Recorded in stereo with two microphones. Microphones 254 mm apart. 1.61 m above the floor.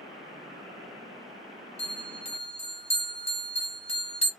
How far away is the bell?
About 0.8 m.